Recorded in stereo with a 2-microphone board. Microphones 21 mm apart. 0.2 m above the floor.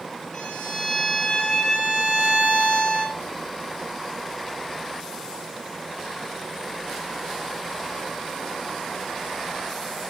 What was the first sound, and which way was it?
A violin, 40° left (ahead or behind).